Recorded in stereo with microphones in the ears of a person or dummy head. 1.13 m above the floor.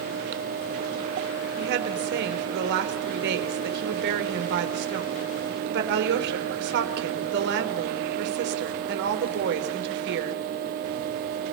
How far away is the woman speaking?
About 4 m.